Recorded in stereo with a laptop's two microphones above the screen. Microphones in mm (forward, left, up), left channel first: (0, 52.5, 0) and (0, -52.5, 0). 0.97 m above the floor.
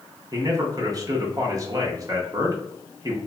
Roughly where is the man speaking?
Right.